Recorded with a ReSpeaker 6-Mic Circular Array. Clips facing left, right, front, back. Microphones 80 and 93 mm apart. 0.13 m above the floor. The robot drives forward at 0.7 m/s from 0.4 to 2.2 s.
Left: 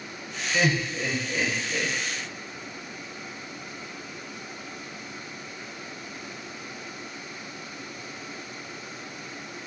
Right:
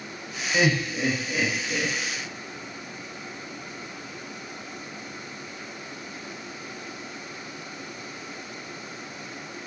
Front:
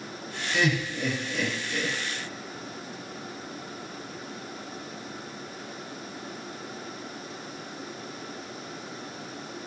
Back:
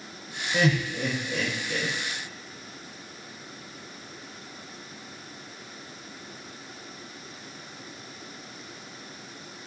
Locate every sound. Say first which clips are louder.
0.5 s laughter: right 2 dB, back 2 dB; 160° right, 1.3 m; by 1.9 s 170° right, 2.0 m